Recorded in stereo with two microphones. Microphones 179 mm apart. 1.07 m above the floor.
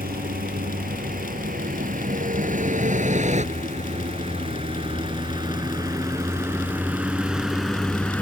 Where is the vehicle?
55° right (ahead or behind); by 8.2 s 10° left (ahead or behind).